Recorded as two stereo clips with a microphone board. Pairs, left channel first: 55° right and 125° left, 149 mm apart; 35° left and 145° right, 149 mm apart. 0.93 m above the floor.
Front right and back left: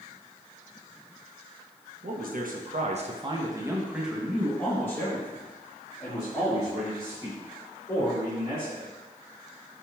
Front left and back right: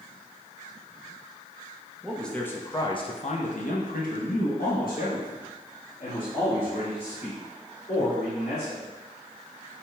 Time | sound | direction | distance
2.0 | a man speaking | 125° left | 1.0 m